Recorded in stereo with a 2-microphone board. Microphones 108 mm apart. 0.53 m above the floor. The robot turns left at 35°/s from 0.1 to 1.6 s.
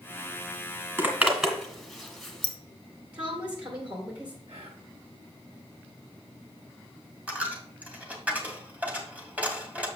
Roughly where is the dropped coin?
Centre.